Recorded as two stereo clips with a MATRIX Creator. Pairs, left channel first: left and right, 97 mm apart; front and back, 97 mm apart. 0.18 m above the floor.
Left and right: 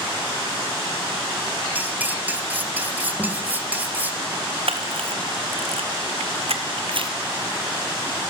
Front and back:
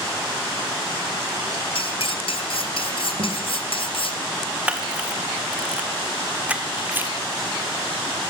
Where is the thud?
170° left, 9 m.